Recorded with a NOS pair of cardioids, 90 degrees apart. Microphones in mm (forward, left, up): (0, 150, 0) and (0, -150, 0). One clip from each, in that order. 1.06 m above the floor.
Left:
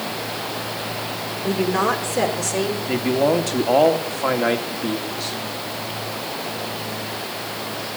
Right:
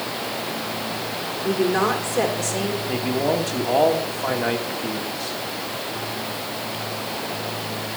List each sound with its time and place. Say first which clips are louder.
1.4 s a woman speaking: even; 5° left, 3 m
2.9 s a man speaking: left 4 dB; 25° left, 2.5 m